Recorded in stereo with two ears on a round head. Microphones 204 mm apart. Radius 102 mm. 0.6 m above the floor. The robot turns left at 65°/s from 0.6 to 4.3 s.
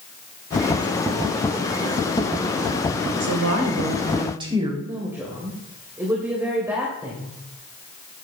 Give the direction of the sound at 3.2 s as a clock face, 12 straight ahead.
3 o'clock.